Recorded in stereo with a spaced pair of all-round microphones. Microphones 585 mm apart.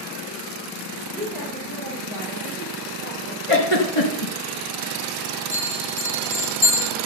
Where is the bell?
60° left (ahead or behind), 2 m.